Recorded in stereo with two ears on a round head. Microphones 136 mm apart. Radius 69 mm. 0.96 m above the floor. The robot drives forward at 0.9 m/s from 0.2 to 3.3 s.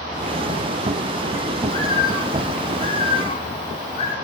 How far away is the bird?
About 5 m.